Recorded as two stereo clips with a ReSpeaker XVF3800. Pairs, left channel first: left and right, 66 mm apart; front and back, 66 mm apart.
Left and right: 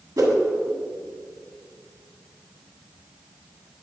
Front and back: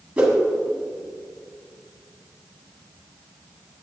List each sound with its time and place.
0.2 s a whoosh: 105° right, 1.4 m